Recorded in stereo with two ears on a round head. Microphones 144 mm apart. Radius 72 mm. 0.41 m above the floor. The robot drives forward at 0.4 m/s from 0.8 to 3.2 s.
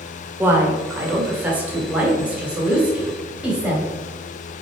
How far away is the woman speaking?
About 1.1 m.